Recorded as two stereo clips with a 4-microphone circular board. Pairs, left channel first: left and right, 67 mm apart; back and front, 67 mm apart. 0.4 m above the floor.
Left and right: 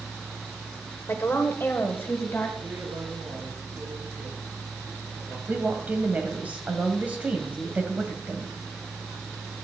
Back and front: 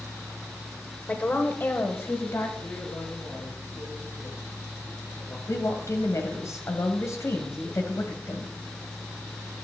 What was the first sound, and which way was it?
A woman speaking, 120° left.